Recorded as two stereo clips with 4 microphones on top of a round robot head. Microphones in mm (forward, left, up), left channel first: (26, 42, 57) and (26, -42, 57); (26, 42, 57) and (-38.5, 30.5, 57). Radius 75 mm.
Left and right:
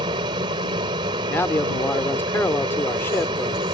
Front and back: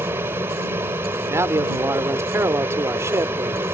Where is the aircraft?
115° right.